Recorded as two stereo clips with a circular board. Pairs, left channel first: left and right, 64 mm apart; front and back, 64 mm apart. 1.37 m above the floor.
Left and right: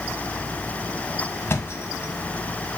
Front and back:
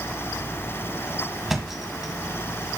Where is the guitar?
I don't hear a guitar.